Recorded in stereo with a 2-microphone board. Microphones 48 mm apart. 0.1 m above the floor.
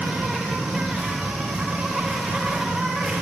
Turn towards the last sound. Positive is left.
turn(degrees=0)  # may be behind; listen again after turning